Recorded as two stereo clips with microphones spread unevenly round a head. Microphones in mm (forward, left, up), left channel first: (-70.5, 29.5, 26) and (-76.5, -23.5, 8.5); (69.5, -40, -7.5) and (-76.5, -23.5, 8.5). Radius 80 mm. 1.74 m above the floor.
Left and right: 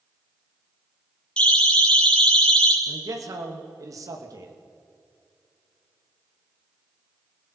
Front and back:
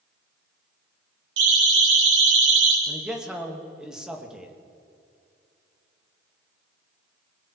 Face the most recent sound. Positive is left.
turn(degrees=-100)